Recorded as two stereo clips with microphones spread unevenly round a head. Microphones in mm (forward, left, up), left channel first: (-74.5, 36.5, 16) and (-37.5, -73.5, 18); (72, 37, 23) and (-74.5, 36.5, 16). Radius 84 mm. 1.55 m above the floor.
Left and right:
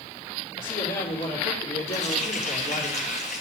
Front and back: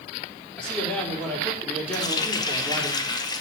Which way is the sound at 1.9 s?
60° left.